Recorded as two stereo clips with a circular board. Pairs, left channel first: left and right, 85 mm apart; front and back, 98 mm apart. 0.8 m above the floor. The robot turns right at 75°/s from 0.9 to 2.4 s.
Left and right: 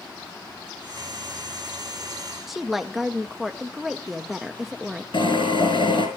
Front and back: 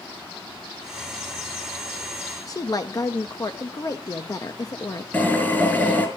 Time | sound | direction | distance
2.5 | a woman speaking | 5° right | 0.7 m
5.1 | a drill | 70° left | 4.5 m